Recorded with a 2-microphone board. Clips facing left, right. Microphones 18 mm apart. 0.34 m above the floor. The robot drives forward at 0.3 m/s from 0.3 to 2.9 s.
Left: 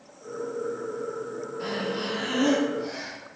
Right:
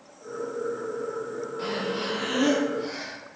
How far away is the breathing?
About 1.5 m.